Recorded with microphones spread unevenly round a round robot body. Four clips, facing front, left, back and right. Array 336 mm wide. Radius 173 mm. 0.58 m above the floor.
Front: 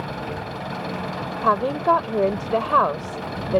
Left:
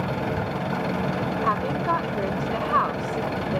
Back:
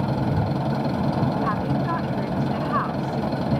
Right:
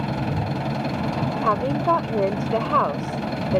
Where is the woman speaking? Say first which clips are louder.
Right 5 dB, front 5 dB; 25° right.